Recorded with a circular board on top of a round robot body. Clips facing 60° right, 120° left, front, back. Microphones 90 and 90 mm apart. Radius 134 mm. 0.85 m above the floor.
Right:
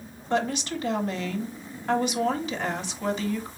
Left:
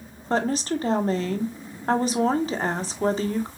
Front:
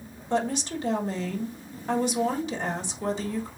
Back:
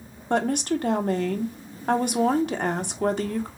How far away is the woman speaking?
About 1.1 m.